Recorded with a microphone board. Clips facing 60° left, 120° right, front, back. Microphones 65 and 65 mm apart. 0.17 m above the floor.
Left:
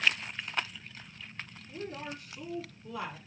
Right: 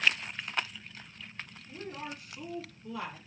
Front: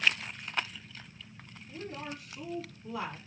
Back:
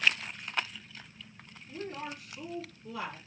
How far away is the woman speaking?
About 1.4 m.